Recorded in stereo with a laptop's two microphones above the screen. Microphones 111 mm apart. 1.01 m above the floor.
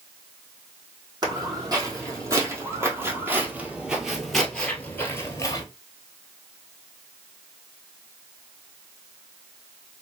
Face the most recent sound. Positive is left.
turn(degrees=35)  # may be behind; listen again after turning